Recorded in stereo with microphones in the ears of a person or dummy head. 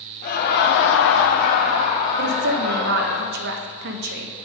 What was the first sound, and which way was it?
Laughter, 50° left (ahead or behind).